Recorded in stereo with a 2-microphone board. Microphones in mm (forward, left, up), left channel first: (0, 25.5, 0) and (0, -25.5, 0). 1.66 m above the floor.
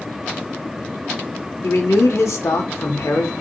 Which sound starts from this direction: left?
A man speaking, at 1.6 s.